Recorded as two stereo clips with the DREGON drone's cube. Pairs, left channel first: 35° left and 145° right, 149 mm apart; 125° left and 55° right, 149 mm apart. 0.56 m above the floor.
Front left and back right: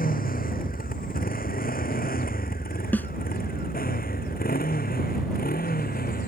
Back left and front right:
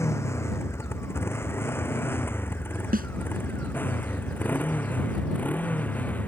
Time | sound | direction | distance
0.0 | a motorcycle | 55° left | ?
2.9 | a snare drum | 45° right | ?